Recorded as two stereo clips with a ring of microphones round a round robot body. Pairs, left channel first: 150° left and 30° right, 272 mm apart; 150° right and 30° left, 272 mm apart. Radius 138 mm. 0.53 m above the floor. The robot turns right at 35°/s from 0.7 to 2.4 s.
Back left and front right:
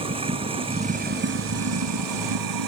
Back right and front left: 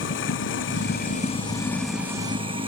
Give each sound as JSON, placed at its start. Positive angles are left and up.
{"t": 0.0, "sound": "running water", "azimuth_deg": -100}